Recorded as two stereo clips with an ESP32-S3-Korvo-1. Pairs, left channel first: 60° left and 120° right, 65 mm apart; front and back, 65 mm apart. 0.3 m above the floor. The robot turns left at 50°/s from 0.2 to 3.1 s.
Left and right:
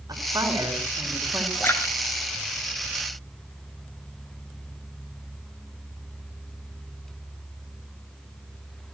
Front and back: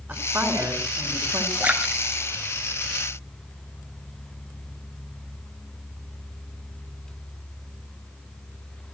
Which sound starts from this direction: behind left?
A splash, at 1.6 s.